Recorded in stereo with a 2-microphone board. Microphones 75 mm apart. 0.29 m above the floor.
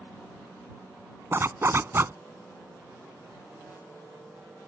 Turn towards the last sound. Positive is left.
turn(degrees=-35)  # may be behind; listen again after turning